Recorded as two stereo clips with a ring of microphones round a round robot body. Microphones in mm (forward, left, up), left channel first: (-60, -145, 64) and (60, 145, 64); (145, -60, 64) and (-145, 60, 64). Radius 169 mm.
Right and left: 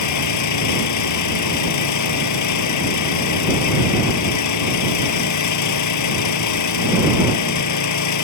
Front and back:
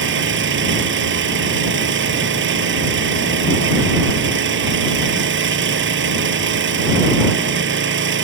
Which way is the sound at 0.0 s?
145° right.